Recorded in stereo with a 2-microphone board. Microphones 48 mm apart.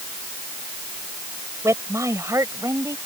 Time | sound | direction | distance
1.6 | a woman speaking | 80° right | ?